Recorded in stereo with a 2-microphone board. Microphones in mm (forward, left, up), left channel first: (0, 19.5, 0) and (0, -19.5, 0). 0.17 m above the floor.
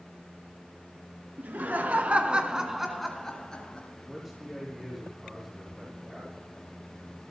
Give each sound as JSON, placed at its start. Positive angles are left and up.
{"t": 1.4, "sound": "laughter", "side_deg": -55, "distance_m": 2.0}
{"t": 4.1, "sound": "a man speaking", "side_deg": 0, "distance_m": 6.0}